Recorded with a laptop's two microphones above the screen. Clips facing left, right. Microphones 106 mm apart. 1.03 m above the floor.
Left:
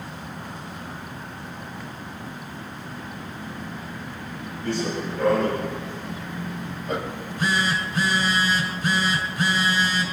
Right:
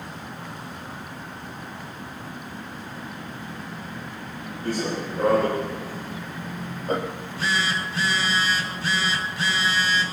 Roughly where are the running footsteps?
Right.